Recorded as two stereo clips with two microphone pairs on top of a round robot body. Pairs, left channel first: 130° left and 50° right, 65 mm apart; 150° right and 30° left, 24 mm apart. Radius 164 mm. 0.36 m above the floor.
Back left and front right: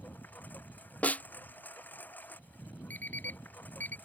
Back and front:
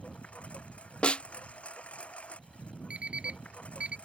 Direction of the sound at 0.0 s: 165° right.